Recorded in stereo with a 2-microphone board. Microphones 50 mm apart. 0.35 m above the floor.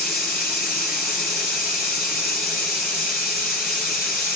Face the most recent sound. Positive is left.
turn(degrees=-10)  # may be behind; listen again after turning